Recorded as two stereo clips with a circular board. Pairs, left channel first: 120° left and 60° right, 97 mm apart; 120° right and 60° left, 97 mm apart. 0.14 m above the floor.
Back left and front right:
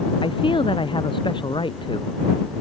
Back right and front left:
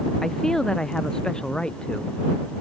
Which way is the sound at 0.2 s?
155° left.